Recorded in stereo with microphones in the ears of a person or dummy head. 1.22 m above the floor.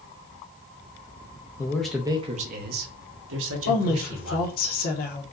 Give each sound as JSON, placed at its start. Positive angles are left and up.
{"t": 1.6, "sound": "a man speaking", "side_deg": 20, "distance_m": 0.6}
{"t": 3.7, "sound": "a woman speaking", "side_deg": 50, "distance_m": 0.9}